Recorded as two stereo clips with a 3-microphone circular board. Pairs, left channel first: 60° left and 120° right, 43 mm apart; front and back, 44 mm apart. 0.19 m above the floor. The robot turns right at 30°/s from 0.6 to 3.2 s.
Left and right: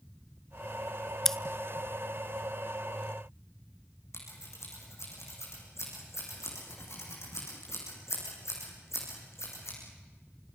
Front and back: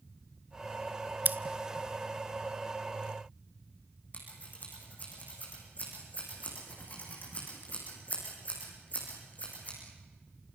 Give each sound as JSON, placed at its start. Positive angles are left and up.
{"t": 1.2, "sound": "scissors", "azimuth_deg": 140, "distance_m": 0.7}
{"t": 4.1, "sound": "scissors", "azimuth_deg": 55, "distance_m": 7.5}